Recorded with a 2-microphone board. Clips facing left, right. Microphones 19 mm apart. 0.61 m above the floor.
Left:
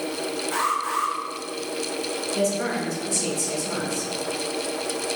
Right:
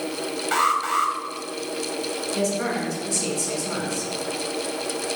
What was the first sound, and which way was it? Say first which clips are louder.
An alarm: right 4 dB; 70° right (ahead or behind).